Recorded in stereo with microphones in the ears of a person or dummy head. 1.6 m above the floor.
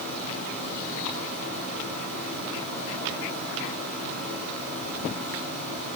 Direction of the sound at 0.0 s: 60° right (ahead or behind).